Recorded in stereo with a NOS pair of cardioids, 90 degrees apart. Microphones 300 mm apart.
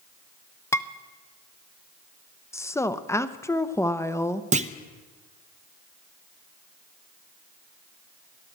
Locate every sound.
0.7 s dishes clattering: 10° left, 0.5 m
2.5 s a woman speaking: 10° left, 0.7 m
4.5 s a clunk: 25° right, 0.7 m